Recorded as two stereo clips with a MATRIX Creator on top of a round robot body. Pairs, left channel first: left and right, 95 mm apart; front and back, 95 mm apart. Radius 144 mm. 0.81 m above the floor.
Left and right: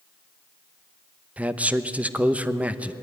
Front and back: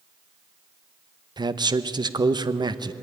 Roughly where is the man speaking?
Behind.